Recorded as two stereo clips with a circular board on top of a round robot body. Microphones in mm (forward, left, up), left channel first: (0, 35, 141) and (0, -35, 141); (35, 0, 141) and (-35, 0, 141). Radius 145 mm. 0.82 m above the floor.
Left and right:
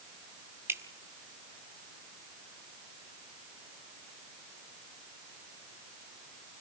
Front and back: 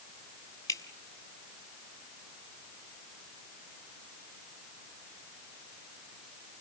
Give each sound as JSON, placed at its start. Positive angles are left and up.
{"t": 0.7, "sound": "dripping", "azimuth_deg": -35, "distance_m": 1.8}